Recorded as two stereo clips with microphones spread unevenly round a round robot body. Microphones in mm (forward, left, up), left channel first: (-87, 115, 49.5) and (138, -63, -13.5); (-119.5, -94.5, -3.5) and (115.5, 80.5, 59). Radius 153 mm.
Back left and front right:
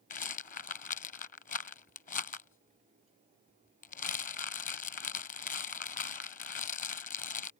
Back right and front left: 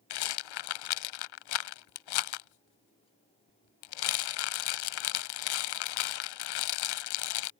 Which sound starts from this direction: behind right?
A rattle, at 0.1 s.